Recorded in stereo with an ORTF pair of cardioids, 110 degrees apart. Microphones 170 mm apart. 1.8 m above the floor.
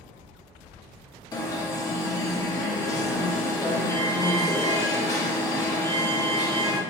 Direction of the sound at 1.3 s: 20° left.